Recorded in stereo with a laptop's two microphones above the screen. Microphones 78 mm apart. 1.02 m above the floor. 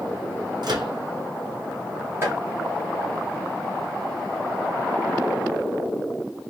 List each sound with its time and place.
0.6 s a microwave: 65° right (ahead or behind), 0.8 m
2.2 s chopping: 30° right (ahead or behind), 2 m